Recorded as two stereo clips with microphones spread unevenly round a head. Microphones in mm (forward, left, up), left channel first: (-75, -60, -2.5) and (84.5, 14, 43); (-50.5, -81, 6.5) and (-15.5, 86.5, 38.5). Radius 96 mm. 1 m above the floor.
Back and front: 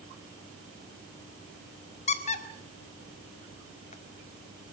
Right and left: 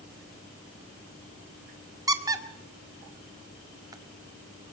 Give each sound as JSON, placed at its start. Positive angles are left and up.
{"t": 2.1, "sound": "a squeak", "azimuth_deg": 150, "distance_m": 1.9}